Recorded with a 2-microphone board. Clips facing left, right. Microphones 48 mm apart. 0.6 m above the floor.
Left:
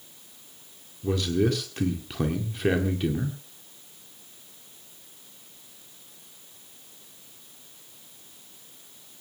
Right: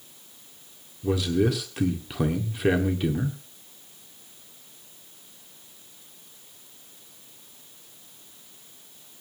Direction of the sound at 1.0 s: Centre (ahead or behind).